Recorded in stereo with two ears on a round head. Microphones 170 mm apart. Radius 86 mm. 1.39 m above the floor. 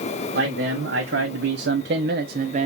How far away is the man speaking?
About 1.3 m.